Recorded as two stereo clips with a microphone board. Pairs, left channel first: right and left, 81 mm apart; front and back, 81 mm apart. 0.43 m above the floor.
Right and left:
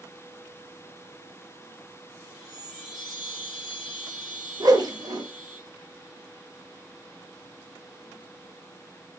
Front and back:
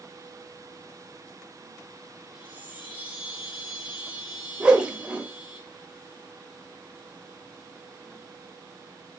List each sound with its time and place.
2.3 s a chime: 5° right, 4 m
4.6 s a whoosh: 105° left, 1.2 m